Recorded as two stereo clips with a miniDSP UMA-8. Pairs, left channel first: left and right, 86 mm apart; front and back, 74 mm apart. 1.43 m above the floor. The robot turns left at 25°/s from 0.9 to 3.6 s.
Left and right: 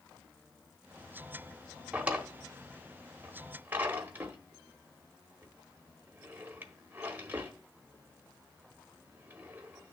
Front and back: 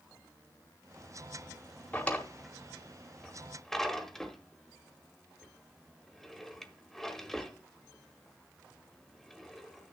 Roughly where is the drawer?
Ahead right.